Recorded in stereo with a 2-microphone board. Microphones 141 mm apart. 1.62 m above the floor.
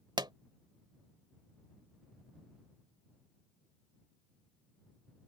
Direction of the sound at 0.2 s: 30° right (ahead or behind).